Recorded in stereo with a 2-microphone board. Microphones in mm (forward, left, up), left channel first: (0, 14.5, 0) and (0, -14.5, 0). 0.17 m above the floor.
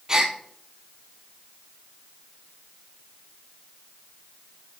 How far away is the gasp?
About 1.1 m.